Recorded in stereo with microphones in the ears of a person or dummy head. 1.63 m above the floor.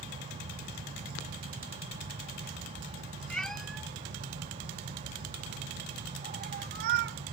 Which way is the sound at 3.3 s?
5° left (ahead or behind).